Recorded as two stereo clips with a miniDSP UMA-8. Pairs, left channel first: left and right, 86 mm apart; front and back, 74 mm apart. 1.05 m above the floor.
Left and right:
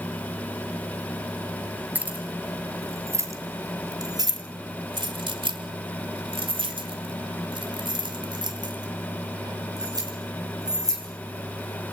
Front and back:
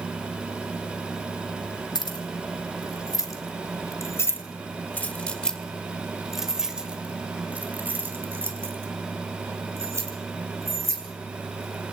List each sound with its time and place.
1.9 s keys jangling: 20° right, 3 m; by 11.0 s 130° right, 5 m